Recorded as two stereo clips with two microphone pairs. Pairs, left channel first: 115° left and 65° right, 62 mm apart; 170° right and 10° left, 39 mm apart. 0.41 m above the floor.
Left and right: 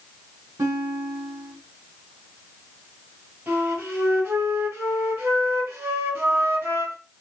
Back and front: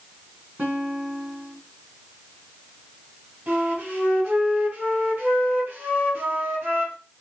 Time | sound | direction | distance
0.6 | a guitar | 45° right | 3 m
3.5 | a flute | 40° right | 2.5 m